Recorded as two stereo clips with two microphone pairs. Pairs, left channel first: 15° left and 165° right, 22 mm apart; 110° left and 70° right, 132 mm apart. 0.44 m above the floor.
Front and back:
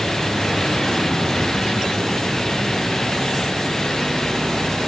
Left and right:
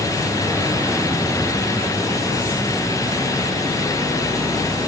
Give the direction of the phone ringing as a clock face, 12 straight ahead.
No phone ringing in this recording.